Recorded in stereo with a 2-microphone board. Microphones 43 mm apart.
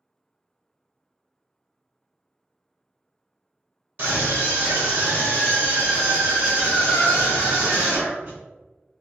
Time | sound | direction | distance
4.0 | a scream | 40° right (ahead or behind) | 1.4 m